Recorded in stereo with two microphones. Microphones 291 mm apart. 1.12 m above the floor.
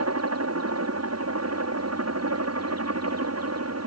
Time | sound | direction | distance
0.0 | a helicopter | 60° right (ahead or behind) | ?